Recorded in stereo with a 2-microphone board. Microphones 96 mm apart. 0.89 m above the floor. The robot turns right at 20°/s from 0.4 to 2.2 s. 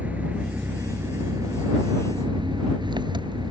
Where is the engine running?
165° right; by 3.5 s 130° right.